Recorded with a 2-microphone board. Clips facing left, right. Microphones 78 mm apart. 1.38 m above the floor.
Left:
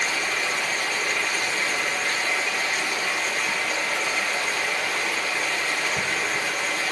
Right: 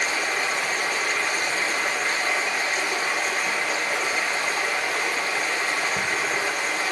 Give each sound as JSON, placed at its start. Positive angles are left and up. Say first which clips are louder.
{"t": 0.0, "sound": "running water", "louder": "right 1 dB", "side_deg": -30, "distance_m": 2.0}